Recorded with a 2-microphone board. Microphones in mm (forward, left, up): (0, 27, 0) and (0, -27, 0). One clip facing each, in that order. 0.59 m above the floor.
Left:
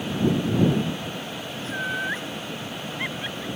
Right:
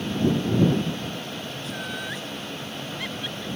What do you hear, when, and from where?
1.6 s laughter: 35° left (ahead or behind); by 3.5 s 25° left (ahead or behind)